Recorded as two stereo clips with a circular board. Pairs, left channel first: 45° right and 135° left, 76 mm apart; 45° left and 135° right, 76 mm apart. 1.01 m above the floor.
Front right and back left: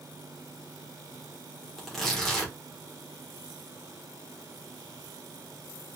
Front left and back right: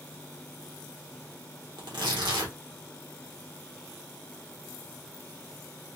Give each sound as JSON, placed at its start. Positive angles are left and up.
{"t": 1.8, "sound": "tearing paper", "azimuth_deg": -130, "distance_m": 1.5}